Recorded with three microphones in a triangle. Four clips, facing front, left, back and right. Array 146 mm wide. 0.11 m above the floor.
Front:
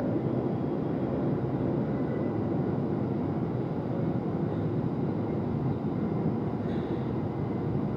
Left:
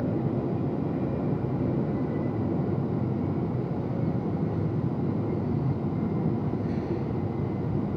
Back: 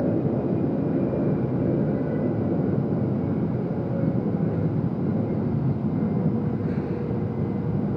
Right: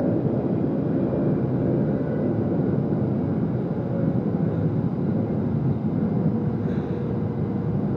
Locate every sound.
0.0 s an aircraft: 135° right